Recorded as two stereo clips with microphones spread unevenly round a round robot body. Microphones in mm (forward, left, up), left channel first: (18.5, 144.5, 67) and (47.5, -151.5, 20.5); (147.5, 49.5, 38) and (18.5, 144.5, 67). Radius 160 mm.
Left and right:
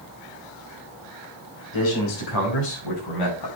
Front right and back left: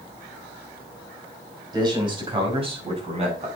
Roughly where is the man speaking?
Left.